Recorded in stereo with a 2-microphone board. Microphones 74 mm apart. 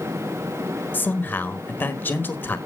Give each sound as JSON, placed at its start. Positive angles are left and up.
{"t": 0.9, "sound": "a man speaking", "side_deg": 25, "distance_m": 1.5}